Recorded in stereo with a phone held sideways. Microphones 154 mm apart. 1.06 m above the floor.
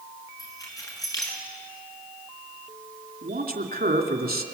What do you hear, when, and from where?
0.4 s keys jangling: 20° left (ahead or behind), 7.5 m
3.2 s a man speaking: 80° right, 3 m